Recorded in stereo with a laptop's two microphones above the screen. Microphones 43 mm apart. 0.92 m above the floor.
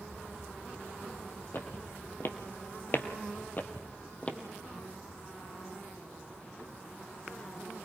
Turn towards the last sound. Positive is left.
turn(degrees=25)  # may be behind; listen again after turning